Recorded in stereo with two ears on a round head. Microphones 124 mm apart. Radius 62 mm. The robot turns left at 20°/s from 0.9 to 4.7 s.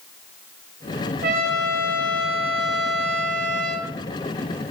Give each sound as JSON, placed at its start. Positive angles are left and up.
{"t": 1.2, "sound": "a trumpet", "azimuth_deg": -70, "distance_m": 5.5}